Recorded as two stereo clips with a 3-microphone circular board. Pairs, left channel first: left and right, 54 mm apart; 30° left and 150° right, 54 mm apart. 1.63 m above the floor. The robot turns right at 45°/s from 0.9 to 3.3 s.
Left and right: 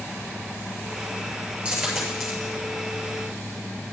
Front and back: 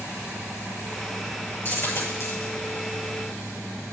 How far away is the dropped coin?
About 6.5 m.